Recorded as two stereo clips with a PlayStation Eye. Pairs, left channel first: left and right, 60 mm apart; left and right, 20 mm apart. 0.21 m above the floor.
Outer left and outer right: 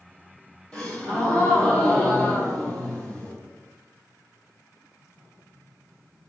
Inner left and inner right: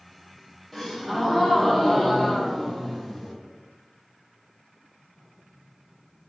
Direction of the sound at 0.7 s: 20° left (ahead or behind).